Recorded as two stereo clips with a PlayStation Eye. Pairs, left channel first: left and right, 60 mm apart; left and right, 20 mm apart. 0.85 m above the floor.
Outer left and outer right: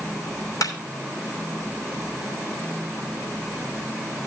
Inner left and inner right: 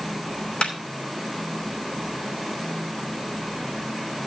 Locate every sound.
0.6 s a clap: 75° left (ahead or behind), 3 m